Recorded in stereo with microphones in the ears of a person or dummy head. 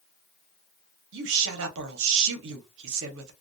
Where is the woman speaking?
70° right (ahead or behind), 0.8 m.